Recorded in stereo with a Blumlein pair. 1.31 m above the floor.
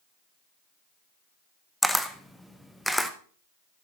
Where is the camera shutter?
Straight ahead, 0.8 m.